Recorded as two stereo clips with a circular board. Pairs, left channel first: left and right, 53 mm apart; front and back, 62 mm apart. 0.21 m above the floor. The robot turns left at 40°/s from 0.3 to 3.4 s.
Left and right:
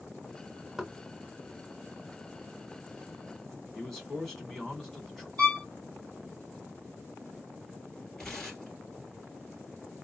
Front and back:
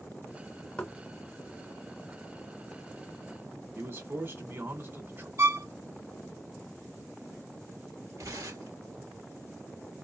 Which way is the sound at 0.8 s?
20° right.